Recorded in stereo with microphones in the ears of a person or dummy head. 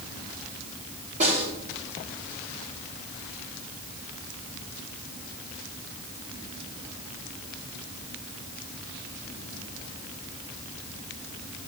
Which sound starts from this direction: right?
A snare drum, at 1.2 s.